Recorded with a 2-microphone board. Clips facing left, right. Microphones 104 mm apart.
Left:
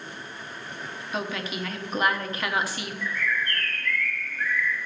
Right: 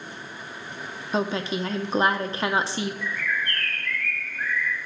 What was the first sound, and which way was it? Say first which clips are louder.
A woman speaking: right 6 dB; 30° right (ahead or behind).